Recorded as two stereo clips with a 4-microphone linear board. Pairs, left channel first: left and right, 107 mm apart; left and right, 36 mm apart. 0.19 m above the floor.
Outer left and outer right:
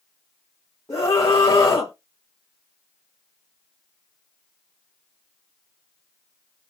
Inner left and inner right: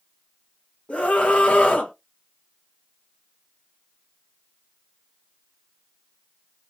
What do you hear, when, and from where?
0.9 s a scream: 30° left (ahead or behind), 1.2 m